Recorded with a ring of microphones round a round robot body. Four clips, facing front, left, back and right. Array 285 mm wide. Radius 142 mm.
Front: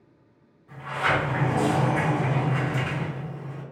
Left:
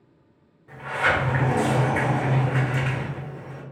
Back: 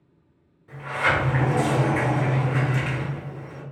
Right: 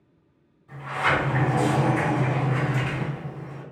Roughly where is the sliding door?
Left.